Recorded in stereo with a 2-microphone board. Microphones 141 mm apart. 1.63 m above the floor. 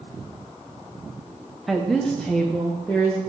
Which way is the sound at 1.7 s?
Centre (ahead or behind).